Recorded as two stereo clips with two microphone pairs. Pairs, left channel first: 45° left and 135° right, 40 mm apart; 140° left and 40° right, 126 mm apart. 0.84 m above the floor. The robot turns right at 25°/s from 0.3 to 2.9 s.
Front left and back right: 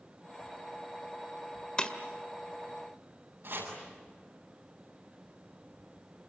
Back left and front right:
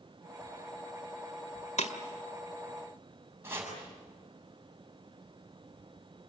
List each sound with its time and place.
1.8 s breaking glass: 115° left, 1.7 m
3.4 s chopping: 110° right, 8 m